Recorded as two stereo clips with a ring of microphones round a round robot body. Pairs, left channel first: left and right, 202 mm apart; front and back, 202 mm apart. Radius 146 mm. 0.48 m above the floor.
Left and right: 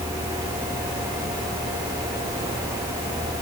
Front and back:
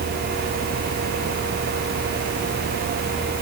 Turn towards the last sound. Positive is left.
No sound to turn to.